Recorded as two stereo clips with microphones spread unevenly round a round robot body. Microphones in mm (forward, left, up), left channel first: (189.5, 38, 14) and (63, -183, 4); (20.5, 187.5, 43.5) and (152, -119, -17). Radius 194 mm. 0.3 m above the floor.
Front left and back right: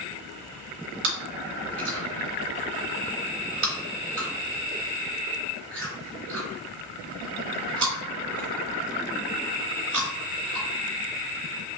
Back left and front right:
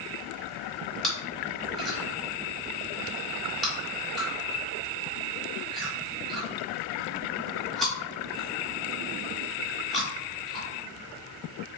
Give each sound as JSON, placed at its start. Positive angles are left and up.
{"t": 1.0, "sound": "chewing", "azimuth_deg": -150, "distance_m": 0.9}